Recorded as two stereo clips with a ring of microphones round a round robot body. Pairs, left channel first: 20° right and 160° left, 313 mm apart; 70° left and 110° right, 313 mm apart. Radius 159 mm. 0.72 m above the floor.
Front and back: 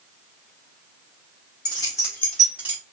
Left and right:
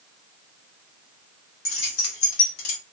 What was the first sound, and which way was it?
Keys jangling, 55° left.